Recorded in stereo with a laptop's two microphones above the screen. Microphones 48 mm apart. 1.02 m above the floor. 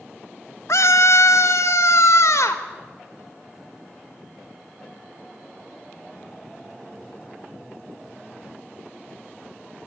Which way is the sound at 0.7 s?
70° left (ahead or behind).